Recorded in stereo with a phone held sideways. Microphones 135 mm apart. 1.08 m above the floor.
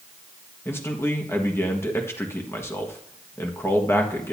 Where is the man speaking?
20° left (ahead or behind), 1.4 m.